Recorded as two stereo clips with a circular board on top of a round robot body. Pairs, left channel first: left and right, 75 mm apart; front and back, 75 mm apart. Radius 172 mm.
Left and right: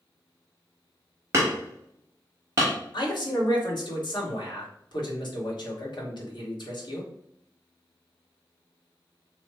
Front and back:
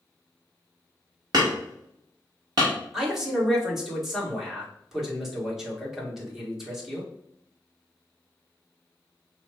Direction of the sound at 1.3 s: 145° right.